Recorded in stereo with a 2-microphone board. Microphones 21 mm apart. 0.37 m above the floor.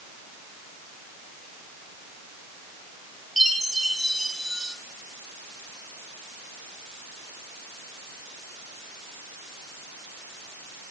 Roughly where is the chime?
Centre.